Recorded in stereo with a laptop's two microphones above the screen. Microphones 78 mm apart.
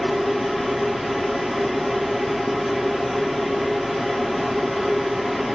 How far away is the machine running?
About 0.7 m.